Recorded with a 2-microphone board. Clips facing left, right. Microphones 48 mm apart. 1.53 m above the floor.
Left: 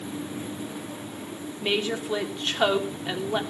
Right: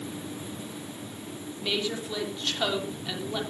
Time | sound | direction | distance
1.6 | a woman speaking | 30° left (ahead or behind) | 3.5 m